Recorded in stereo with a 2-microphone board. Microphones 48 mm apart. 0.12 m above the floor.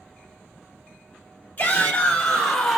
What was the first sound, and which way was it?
A shout, 30° left (ahead or behind).